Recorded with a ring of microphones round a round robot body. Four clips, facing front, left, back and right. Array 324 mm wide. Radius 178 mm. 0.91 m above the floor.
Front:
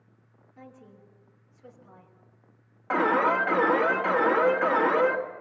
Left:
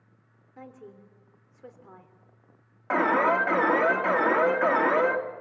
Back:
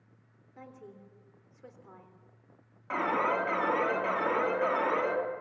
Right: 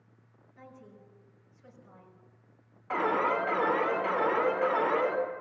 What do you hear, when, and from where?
0.6 s a woman speaking: 110° left, 3.5 m
2.9 s an alarm: 60° left, 3 m